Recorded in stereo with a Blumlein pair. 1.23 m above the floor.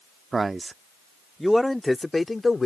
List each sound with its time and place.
0.3 s a man speaking: 15° right; by 2.7 s 10° left